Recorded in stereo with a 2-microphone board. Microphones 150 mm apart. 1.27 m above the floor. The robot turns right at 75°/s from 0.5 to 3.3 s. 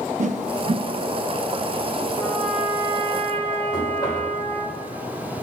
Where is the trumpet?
160° left, 1.4 m; by 4.7 s 120° right, 1.4 m.